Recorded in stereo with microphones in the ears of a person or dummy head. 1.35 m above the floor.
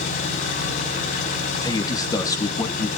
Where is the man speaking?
20° left (ahead or behind), 2.5 m.